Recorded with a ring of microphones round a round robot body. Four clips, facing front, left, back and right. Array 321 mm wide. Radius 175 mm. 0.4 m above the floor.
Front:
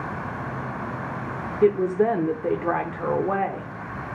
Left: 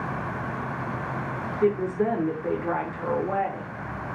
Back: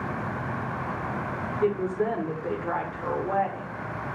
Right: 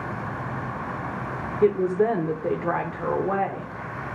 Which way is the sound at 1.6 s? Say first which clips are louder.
Right 3 dB, front 7 dB; 30° right.